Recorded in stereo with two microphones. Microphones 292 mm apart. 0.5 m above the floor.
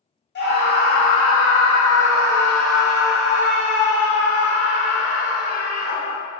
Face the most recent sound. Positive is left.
turn(degrees=-20)  # may be behind; listen again after turning